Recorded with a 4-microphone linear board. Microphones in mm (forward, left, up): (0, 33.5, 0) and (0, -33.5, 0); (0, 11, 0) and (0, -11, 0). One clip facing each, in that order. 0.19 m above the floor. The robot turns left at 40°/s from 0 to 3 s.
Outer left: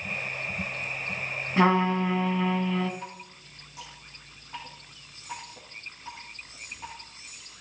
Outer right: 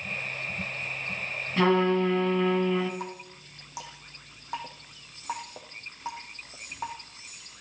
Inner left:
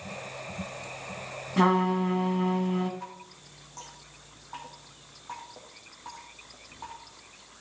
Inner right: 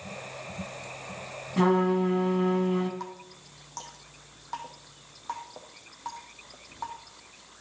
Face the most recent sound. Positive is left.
turn(degrees=-70)  # may be behind; listen again after turning